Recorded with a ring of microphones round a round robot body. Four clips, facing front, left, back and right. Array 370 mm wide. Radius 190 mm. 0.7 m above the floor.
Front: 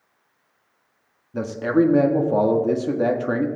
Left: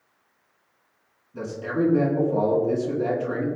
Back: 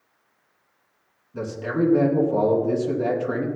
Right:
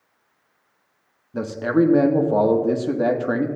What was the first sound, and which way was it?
A man speaking, 50° right.